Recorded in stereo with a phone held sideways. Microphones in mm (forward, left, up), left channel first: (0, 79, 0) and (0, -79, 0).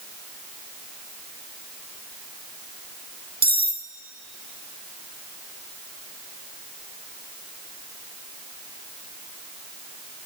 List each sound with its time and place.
3.4 s cutlery clinking: 75° right (ahead or behind), 1.1 m